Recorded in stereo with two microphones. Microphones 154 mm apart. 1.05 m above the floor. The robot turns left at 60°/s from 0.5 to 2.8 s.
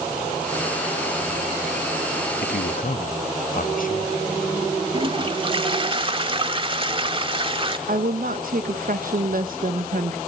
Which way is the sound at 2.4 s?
80° left.